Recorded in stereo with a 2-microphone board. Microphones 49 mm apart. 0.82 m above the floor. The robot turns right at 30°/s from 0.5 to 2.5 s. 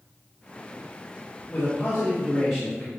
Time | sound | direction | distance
1.5 | a man speaking | 140° left | 3.5 m